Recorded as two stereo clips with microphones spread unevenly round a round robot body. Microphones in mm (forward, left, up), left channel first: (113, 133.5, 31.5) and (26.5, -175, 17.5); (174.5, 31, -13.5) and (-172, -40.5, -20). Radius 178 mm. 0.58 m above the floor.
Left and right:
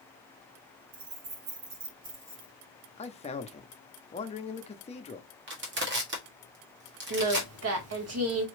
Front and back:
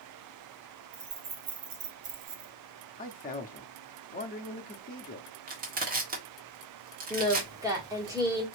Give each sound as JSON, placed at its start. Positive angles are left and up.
{"t": 0.9, "sound": "keys jangling", "azimuth_deg": -130, "distance_m": 2.0}
{"t": 3.0, "sound": "a man speaking", "azimuth_deg": 30, "distance_m": 0.7}
{"t": 5.5, "sound": "crushing", "azimuth_deg": -120, "distance_m": 1.5}
{"t": 7.1, "sound": "singing", "azimuth_deg": -90, "distance_m": 1.4}